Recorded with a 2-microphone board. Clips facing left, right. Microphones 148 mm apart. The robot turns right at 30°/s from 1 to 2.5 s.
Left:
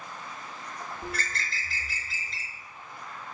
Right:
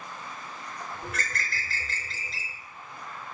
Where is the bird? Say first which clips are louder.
Even; 145° left, 0.5 m; by 2.6 s 175° right, 0.5 m.